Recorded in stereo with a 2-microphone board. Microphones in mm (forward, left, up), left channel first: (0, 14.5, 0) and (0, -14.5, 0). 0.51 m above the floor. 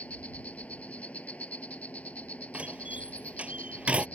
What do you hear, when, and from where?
0.0 s an insect: 55° left (ahead or behind)
2.5 s a door slam: 45° right (ahead or behind)